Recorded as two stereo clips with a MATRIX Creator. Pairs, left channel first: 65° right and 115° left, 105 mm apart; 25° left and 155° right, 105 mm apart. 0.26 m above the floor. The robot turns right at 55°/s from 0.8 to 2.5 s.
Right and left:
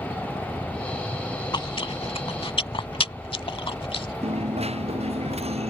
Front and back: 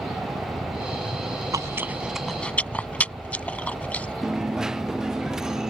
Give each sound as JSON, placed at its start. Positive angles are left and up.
{"t": 0.0, "sound": "a helicopter", "azimuth_deg": 165}
{"t": 1.5, "sound": "chewing", "azimuth_deg": -105}
{"t": 4.2, "sound": "a dropped coin", "azimuth_deg": 120}